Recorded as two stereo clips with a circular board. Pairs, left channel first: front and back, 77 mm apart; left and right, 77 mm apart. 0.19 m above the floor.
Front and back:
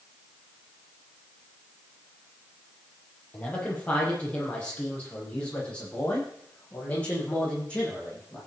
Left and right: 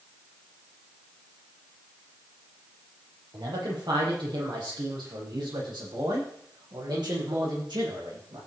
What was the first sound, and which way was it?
A man speaking, 70° right.